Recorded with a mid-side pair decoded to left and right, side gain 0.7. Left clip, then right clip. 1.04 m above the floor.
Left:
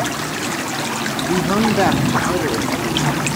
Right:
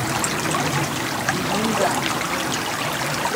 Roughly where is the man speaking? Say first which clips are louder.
Left 4 dB; ahead left.